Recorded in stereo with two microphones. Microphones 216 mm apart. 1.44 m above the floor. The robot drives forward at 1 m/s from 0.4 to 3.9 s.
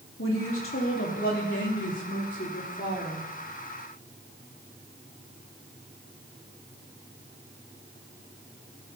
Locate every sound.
0.2 s a woman speaking: 80° left, 3.5 m; by 3.3 s 45° left (ahead or behind), 5 m